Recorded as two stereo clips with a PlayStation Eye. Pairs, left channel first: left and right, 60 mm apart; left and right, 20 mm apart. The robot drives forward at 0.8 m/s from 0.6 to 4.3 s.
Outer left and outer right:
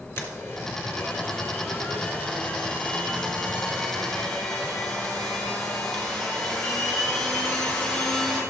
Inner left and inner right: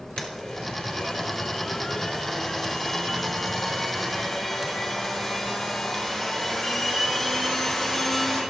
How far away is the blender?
About 2.5 m.